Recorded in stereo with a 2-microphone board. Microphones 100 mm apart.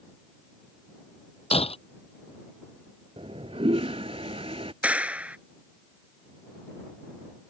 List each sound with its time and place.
1.5 s breaking glass: 80° left
3.2 s a toilet flushing: 75° right (ahead or behind)
4.8 s a clap: 15° right (ahead or behind)